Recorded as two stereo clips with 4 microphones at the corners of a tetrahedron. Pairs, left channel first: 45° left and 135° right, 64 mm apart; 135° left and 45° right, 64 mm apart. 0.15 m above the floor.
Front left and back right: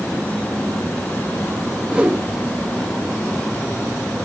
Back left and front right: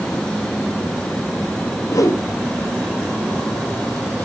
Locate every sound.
1.9 s a whoosh: 155° left, 3 m